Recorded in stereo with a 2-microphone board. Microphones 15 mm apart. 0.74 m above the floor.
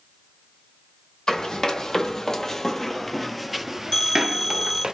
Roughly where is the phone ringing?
Left.